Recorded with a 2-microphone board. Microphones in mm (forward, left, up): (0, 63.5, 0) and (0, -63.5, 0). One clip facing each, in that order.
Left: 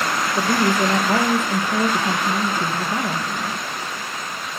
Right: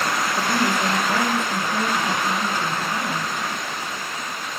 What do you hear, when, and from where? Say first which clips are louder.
0.3 s a woman speaking: left 5 dB; 45° left (ahead or behind), 3.5 m